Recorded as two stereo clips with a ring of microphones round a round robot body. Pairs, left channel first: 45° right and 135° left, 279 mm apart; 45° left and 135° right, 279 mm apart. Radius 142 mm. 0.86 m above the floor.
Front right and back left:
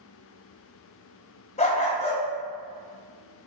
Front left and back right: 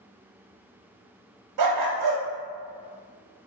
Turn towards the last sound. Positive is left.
turn(degrees=-115)